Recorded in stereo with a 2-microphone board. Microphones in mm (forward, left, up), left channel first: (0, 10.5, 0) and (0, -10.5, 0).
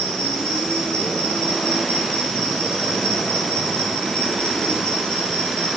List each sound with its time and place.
0.0 s an insect: 65° left (ahead or behind), 4 m